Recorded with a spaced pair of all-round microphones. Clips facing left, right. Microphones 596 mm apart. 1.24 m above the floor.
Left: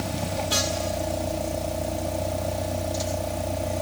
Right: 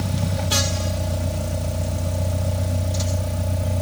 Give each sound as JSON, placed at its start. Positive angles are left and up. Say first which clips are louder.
{"t": 0.0, "sound": "a vehicle", "louder": "right 2 dB", "side_deg": -40}